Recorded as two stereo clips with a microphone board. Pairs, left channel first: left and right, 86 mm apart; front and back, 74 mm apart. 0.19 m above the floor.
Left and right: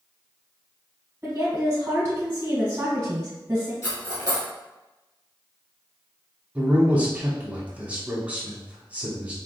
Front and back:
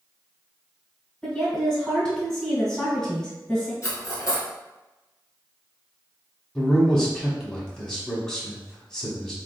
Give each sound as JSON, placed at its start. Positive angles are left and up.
{"t": 1.2, "sound": "a woman speaking", "azimuth_deg": -70, "distance_m": 1.4}
{"t": 3.8, "sound": "cutlery clinking", "azimuth_deg": 50, "distance_m": 1.6}
{"t": 6.5, "sound": "a man speaking", "azimuth_deg": -60, "distance_m": 1.1}